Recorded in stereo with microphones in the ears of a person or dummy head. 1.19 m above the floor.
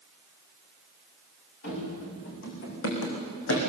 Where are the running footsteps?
55° left (ahead or behind), 5.5 m; by 3.6 s 75° left (ahead or behind), 5 m.